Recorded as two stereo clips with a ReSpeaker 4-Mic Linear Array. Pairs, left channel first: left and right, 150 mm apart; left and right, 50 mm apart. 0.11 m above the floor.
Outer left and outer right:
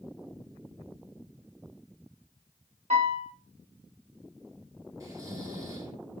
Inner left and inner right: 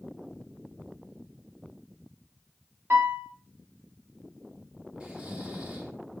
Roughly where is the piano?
Right.